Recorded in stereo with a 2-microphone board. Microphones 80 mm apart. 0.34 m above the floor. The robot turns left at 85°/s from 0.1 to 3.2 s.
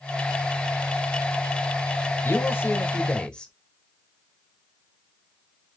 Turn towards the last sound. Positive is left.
turn(degrees=10)  # may be behind; listen again after turning